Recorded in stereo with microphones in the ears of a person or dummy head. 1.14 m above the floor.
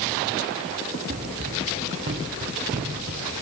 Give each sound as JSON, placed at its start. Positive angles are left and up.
{"t": 1.1, "sound": "running footsteps", "side_deg": -40, "distance_m": 5.5}